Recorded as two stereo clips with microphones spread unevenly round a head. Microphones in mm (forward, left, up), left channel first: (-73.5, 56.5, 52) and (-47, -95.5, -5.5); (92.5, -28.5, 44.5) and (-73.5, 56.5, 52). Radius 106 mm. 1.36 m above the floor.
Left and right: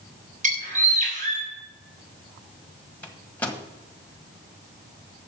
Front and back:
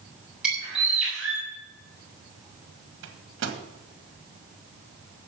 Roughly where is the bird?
Behind right.